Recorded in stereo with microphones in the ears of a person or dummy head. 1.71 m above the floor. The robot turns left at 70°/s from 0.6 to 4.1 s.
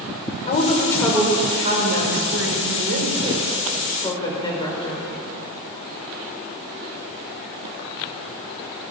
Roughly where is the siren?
No siren in this recording.